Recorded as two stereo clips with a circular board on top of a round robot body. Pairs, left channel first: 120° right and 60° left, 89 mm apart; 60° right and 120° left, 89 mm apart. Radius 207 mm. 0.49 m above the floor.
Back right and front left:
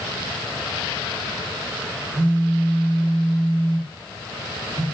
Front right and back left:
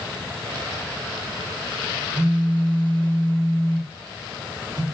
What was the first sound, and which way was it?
A phone buzzing, 90° left.